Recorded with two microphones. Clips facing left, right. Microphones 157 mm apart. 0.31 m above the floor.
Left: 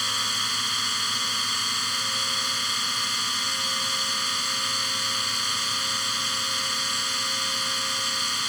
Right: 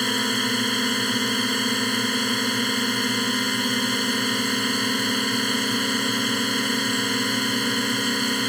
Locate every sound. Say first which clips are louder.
0.0 s a drone: right 12 dB; 55° right (ahead or behind)